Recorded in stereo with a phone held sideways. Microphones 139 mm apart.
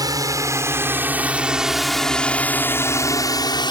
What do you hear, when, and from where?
0.0 s a drone: 25° right (ahead or behind); by 3.7 s 35° left (ahead or behind)